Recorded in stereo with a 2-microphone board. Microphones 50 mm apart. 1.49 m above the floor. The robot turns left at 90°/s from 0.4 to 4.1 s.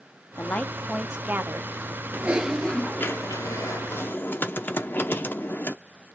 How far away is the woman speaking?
About 0.9 m.